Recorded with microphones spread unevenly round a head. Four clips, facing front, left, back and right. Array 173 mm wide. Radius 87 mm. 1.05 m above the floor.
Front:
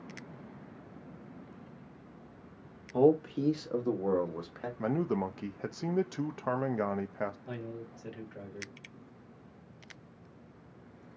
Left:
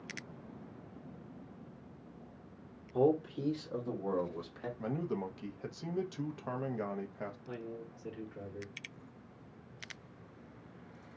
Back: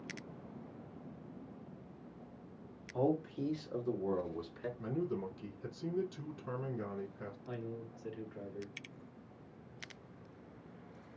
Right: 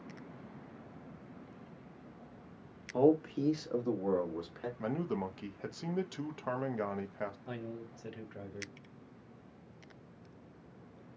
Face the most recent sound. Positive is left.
turn(degrees=-65)